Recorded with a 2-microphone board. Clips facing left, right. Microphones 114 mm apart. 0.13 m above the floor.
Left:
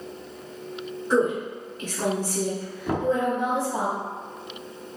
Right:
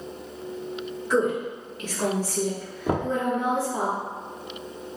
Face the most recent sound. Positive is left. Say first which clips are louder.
# left 1 dB
turn(degrees=-20)  # may be behind; listen again after turning